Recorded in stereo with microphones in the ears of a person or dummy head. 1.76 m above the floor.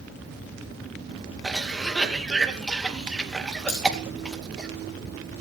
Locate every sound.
1.4 s a cough: centre (ahead or behind), 2.5 m
3.7 s cutlery clinking: 30° left (ahead or behind), 5 m